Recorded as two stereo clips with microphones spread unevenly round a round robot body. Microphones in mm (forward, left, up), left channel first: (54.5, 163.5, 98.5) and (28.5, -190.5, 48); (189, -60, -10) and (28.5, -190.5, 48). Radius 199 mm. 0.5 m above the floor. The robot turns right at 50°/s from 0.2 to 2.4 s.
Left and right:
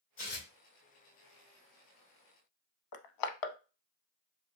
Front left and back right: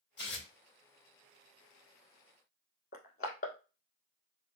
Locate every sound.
0.2 s tearing paper: 30° left, 3 m; by 0.5 s 45° left, 3 m
2.9 s crushing: 110° left, 0.6 m